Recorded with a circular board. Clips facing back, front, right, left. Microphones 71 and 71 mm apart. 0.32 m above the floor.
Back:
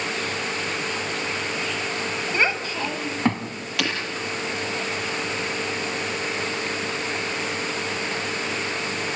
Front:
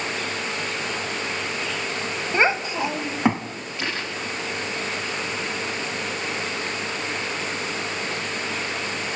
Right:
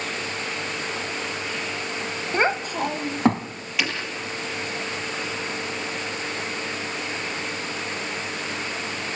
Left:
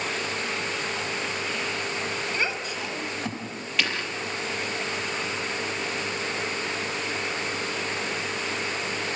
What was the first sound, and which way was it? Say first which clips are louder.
A child speaking: front 4 dB, right 7 dB; 55° right.